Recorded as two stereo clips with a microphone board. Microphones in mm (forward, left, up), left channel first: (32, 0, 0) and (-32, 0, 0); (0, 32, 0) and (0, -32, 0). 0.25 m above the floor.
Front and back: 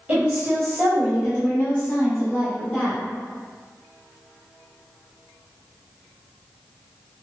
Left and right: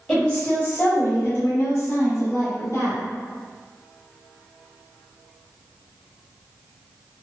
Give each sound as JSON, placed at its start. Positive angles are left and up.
{"t": 0.1, "sound": "a woman speaking", "azimuth_deg": 160, "distance_m": 1.0}